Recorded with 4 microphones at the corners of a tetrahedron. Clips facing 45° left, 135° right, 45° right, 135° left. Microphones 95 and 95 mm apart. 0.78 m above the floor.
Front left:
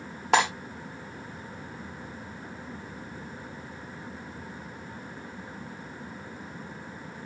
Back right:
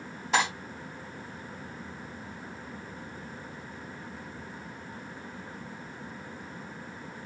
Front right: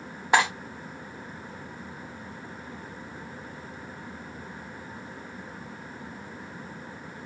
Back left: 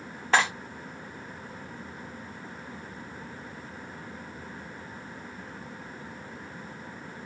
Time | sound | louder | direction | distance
0.3 | cutlery clinking | front left 4 dB, front right 2 dB | 30° left | 1.1 m